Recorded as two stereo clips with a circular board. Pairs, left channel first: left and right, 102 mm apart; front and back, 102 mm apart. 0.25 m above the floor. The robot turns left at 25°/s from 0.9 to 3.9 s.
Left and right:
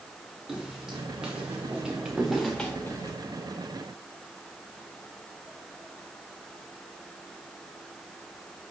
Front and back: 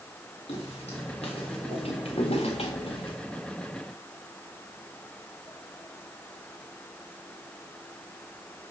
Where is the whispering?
No whispering in this recording.